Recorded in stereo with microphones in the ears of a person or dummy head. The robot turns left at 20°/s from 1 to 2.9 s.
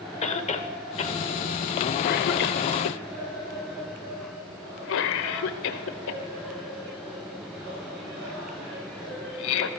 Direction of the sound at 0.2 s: 35° left (ahead or behind).